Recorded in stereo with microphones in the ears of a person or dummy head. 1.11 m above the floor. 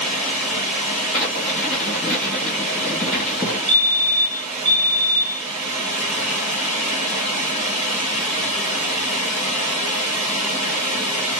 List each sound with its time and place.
0.0 s running water: 5° right (ahead or behind), 2.5 m
1.1 s writing: 5° left (ahead or behind), 2.0 m
3.7 s a fire alarm: 20° right (ahead or behind), 2.5 m